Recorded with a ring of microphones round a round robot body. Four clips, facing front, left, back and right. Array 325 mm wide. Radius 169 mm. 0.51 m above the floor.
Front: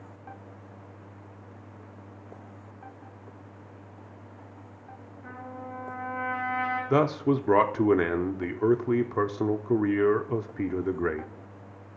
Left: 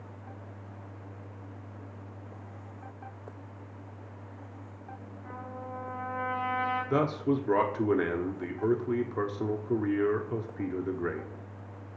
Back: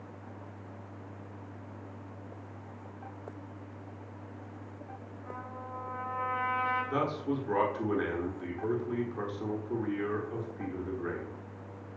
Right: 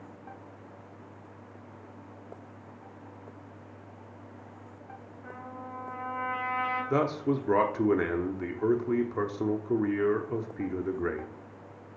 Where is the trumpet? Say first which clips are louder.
Left 1 dB, front 3 dB; 35° right, 4 m.